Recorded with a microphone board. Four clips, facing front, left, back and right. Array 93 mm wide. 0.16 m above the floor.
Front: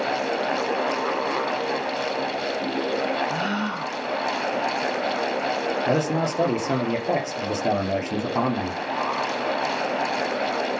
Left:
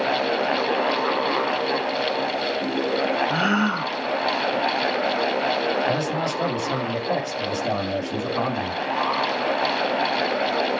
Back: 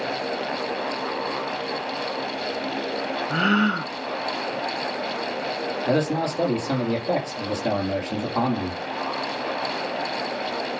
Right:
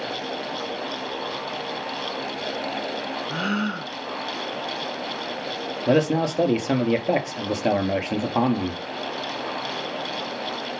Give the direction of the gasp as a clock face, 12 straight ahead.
7 o'clock.